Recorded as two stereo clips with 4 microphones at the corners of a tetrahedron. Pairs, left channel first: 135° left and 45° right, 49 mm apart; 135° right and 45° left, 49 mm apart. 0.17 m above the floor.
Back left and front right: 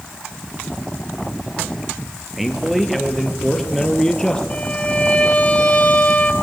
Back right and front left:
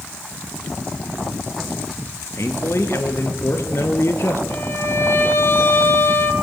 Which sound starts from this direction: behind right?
A man speaking, at 2.4 s.